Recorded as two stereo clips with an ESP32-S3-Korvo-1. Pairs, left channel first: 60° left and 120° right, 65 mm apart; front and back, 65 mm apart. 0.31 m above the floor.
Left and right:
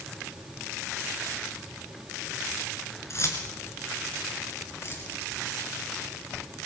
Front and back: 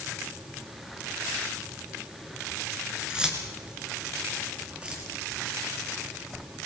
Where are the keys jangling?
105° left, 3.5 m.